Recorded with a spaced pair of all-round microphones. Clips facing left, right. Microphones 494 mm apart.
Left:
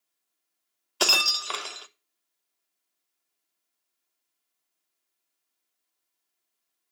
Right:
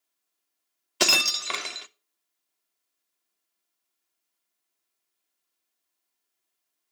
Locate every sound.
1.0 s breaking glass: 45° right (ahead or behind), 0.5 m